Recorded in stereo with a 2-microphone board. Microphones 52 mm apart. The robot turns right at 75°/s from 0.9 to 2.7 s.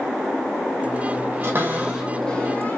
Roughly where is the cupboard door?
Right.